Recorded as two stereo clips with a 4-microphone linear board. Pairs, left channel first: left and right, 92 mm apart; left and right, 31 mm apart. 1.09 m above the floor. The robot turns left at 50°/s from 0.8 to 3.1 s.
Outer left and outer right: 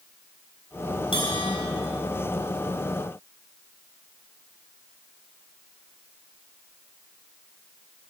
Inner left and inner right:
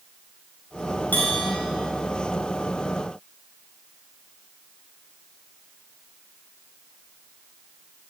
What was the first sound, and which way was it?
A bell, 80° left.